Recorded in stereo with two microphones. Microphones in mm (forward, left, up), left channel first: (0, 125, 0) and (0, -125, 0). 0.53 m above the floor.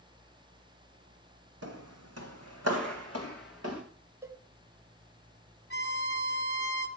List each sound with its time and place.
1.6 s footsteps: 75° right (ahead or behind), 1.6 m; by 3.8 s 70° right (ahead or behind), 3 m
4.2 s a cowbell: 10° right (ahead or behind), 0.9 m
5.7 s a violin: 45° left (ahead or behind), 1.2 m